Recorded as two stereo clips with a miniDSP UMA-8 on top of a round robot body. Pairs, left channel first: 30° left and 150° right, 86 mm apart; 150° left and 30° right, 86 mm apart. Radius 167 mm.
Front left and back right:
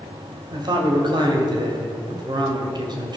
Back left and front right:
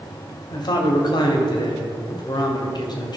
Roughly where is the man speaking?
Behind.